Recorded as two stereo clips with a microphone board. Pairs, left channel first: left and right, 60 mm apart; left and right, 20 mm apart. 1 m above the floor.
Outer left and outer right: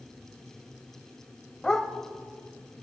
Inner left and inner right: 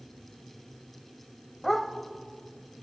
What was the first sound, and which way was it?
A dog barking, 10° left (ahead or behind).